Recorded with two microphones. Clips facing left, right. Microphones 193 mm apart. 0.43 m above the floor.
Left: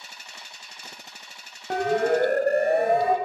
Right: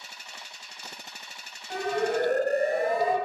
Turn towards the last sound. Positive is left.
turn(degrees=60)  # may be behind; listen again after turning